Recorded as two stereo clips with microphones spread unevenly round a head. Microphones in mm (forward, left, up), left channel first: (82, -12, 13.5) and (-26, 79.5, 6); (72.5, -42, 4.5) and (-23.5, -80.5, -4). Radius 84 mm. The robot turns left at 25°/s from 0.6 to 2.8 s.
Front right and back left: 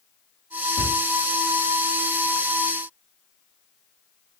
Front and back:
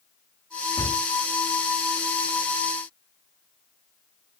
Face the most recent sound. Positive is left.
turn(degrees=-95)